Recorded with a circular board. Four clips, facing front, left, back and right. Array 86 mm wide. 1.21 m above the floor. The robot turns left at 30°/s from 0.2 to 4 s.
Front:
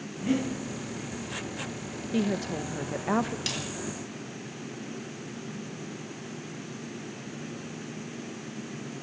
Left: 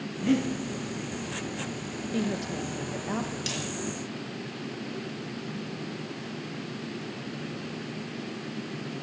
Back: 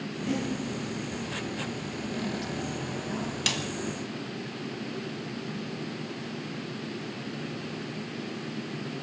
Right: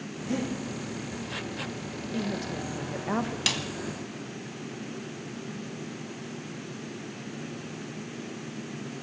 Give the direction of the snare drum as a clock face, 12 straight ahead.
4 o'clock.